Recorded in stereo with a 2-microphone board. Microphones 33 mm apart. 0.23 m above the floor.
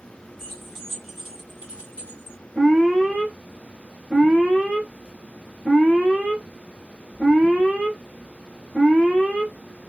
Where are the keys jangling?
10° left (ahead or behind), 1.3 m; by 2.4 s 40° right (ahead or behind), 1.3 m.